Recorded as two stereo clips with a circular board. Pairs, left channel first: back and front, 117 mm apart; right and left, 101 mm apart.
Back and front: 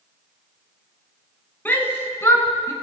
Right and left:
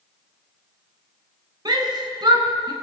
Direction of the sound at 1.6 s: 110° left.